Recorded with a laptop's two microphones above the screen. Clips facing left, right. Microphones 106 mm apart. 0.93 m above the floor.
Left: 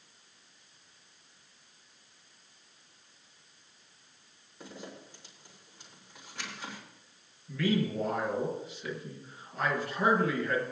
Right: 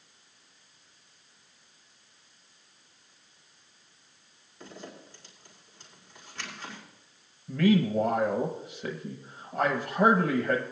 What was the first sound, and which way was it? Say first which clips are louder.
A zipper: right 1 dB; 15° left (ahead or behind).